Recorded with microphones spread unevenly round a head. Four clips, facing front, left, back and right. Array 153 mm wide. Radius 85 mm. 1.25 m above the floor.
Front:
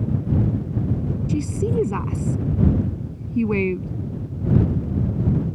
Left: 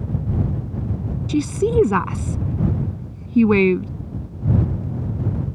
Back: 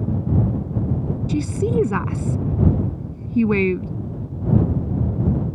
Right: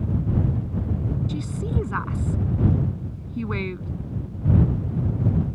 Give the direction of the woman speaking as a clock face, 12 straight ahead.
8 o'clock.